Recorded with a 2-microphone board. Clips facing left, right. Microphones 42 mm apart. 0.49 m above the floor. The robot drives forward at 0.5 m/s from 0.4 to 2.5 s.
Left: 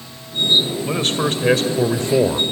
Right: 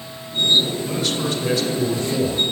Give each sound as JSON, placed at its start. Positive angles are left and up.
{"t": 0.9, "sound": "a man speaking", "side_deg": 40, "distance_m": 2.0}